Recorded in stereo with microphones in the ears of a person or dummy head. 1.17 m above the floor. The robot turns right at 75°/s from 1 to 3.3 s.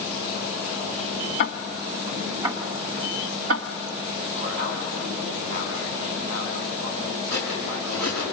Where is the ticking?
55° left (ahead or behind), 1.1 m; by 3.7 s 70° right (ahead or behind), 1.1 m.